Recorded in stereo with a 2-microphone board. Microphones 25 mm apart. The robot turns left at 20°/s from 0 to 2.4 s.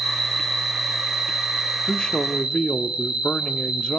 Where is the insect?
5° left, 9 m; by 4.0 s 45° right, 9 m.